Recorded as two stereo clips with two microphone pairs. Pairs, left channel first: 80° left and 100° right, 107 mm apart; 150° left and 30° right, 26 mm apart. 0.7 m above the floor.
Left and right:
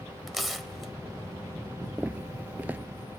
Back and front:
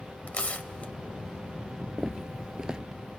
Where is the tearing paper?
170° left, 2.0 m.